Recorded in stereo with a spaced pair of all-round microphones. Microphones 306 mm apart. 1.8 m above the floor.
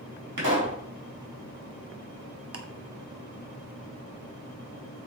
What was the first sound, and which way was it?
A pop, 85° right.